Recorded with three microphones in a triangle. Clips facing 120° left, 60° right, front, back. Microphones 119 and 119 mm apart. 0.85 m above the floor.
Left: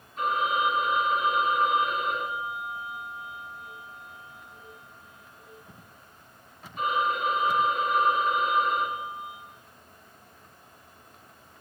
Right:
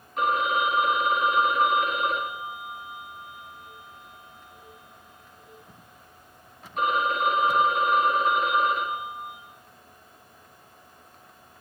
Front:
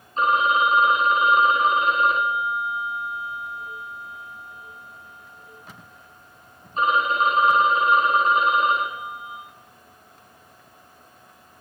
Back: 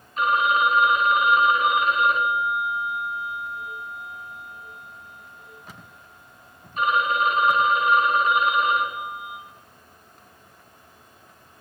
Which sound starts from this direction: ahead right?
A phone ringing, at 0.2 s.